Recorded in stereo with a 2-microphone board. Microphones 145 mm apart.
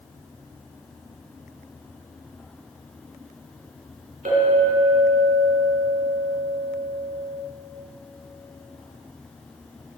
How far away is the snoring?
No snoring in this recording.